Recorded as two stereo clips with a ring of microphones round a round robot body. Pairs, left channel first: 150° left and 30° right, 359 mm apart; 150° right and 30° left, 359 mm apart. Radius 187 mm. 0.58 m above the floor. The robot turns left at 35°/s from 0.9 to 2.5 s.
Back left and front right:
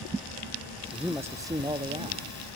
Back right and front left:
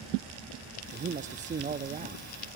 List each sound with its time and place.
0.9 s a man speaking: 50° left, 0.6 m; by 2.3 s 5° left, 0.6 m